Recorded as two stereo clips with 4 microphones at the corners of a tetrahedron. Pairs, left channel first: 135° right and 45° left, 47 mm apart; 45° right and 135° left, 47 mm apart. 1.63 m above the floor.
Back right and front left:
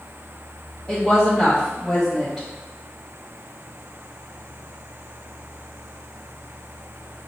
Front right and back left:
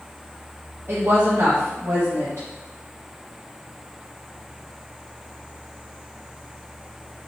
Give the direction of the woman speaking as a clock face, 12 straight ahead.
7 o'clock.